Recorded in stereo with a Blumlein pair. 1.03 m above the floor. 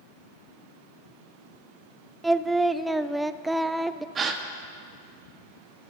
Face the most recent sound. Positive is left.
turn(degrees=-20)